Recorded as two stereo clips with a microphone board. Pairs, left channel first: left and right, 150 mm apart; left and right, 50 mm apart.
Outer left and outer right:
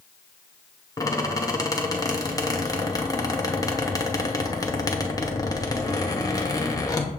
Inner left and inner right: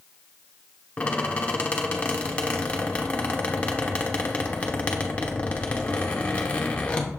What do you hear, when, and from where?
1.0 s a squeak: 25° left (ahead or behind), 0.7 m